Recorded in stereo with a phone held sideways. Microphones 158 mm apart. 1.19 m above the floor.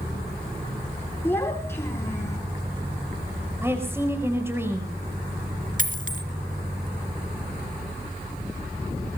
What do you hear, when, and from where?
1.2 s a child speaking: 15° left (ahead or behind), 9 m; by 2.4 s 20° left (ahead or behind), 8 m
3.6 s a woman speaking: 15° right (ahead or behind), 5 m
5.8 s a dropped coin: 55° right (ahead or behind), 2.5 m